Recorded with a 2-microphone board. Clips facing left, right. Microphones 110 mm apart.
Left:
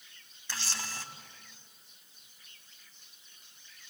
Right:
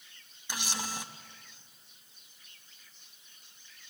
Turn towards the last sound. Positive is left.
turn(degrees=-15)  # may be behind; listen again after turning